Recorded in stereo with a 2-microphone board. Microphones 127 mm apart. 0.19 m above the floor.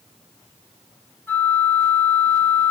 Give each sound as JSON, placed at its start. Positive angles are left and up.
{"t": 1.3, "sound": "a flute", "side_deg": 15, "distance_m": 1.0}